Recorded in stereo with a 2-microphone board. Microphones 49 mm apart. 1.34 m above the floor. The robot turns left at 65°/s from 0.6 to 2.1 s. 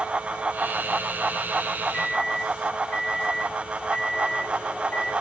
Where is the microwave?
15° left (ahead or behind), 4.5 m; by 5.1 s 25° left (ahead or behind), 4.5 m.